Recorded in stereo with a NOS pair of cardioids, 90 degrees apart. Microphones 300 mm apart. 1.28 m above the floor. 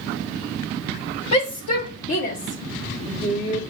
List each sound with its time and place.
1.3 s a shout: 65° left, 1.3 m; by 3.6 s 35° left, 2 m